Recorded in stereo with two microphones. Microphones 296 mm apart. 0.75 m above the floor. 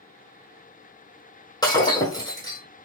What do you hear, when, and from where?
1.6 s breaking glass: 15° left (ahead or behind), 1.8 m